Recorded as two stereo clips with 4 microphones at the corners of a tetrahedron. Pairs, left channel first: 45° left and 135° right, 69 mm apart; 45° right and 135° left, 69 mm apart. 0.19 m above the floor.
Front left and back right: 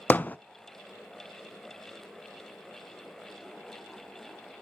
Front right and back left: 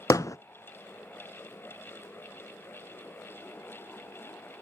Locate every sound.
0.1 s hammering: 20° right, 0.5 m